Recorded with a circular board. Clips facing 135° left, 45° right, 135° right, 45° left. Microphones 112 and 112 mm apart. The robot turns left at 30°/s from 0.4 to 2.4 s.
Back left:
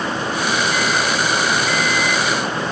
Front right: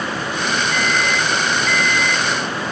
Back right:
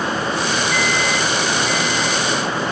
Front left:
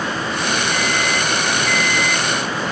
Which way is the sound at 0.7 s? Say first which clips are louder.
Back left 1 dB, back right 1 dB; 90° left.